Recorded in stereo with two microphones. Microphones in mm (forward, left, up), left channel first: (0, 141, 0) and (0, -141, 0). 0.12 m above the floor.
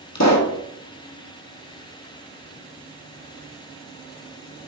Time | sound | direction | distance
0.1 | a pop | 70° left (ahead or behind) | 1.5 m